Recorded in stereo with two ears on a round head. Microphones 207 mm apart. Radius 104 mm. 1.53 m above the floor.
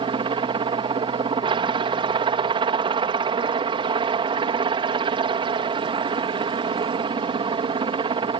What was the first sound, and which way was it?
A helicopter, 20° right (ahead or behind).